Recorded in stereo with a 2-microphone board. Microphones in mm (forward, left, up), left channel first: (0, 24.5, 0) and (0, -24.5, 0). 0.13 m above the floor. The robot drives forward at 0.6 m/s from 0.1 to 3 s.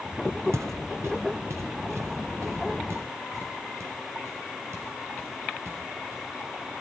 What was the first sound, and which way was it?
Footsteps, 85° right.